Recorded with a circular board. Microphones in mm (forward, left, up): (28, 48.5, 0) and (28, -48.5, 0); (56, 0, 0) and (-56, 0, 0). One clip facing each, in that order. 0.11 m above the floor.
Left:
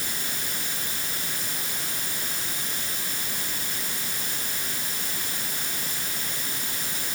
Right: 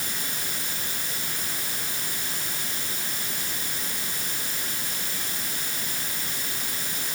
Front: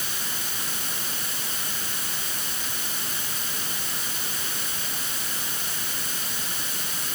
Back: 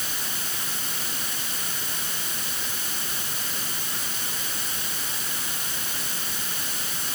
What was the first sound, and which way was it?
Only background noise.